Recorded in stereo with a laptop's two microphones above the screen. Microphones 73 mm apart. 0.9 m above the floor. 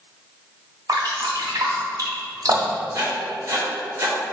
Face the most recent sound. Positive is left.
turn(degrees=-45)  # may be behind; listen again after turning